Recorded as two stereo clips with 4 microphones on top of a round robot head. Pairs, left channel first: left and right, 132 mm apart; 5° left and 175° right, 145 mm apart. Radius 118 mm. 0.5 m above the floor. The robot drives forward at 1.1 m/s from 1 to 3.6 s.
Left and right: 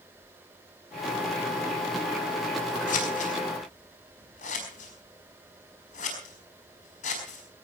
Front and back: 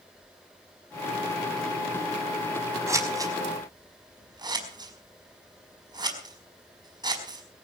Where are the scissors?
115° left, 5 m; by 7.6 s 120° left, 5 m.